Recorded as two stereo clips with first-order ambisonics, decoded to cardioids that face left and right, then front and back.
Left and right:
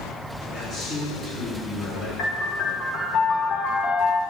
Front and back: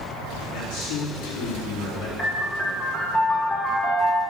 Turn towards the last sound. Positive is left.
turn(degrees=90)